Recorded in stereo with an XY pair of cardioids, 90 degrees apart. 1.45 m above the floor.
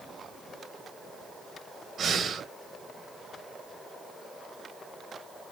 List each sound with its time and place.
2.0 s breathing: 60° right, 1.3 m